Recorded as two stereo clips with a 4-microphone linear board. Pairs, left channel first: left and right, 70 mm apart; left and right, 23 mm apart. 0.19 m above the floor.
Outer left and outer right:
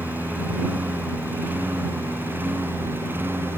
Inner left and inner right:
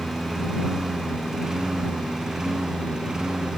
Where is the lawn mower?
25° right (ahead or behind); by 3.6 s 30° right (ahead or behind).